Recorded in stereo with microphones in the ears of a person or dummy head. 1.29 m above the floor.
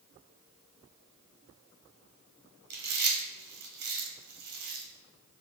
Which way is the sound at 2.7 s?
60° right (ahead or behind).